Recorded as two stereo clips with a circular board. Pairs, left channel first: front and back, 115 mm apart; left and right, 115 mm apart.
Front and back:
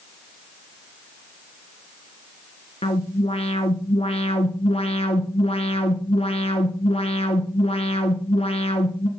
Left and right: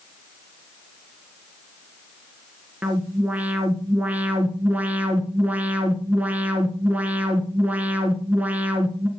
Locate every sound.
2.8 s an alarm: 15° right, 1.7 m